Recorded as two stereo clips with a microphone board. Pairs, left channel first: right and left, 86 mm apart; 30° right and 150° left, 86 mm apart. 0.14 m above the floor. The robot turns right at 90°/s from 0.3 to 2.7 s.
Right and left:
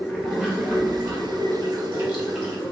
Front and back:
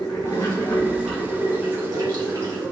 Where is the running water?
Straight ahead, 1.4 m; by 2.7 s 145° right, 1.4 m.